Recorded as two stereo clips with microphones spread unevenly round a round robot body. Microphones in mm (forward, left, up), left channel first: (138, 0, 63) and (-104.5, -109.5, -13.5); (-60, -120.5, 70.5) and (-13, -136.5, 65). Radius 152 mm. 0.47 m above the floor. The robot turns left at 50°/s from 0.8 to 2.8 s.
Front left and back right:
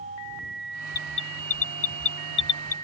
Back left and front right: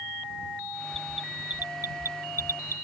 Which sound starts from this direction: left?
An alarm, at 0.9 s.